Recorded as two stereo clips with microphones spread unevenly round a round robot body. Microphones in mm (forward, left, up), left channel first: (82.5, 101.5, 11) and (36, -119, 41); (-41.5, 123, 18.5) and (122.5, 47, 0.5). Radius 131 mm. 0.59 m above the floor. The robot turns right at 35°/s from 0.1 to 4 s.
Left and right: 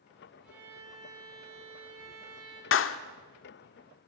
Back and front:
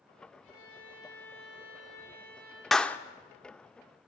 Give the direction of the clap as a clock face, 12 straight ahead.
10 o'clock.